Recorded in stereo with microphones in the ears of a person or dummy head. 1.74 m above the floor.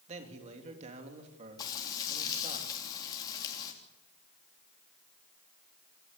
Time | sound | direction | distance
0.1 | a man speaking | 35° right (ahead or behind) | 3 m
1.6 | frying | 20° left (ahead or behind) | 3.5 m